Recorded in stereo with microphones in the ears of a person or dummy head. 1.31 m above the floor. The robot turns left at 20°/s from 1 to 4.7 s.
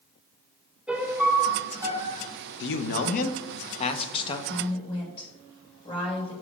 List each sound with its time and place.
0.9 s a piano: centre (ahead or behind), 0.7 m; by 2.3 s 20° right (ahead or behind), 0.7 m
2.6 s a man speaking: 65° left, 0.7 m; by 4.4 s 30° left, 0.7 m
4.5 s a woman speaking: 35° left (ahead or behind), 2.5 m; by 6.3 s 30° left (ahead or behind), 2.5 m